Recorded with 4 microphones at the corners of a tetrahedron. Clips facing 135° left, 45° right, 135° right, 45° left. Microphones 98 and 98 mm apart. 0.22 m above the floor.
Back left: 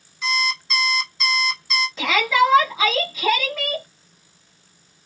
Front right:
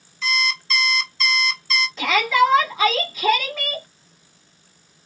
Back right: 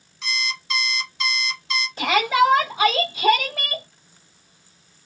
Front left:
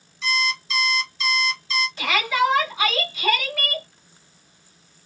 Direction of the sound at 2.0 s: 140° right.